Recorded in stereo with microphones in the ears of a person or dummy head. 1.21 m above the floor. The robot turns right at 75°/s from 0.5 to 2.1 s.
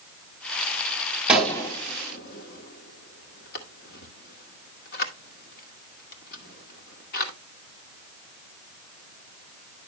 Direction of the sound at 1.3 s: 10° right (ahead or behind).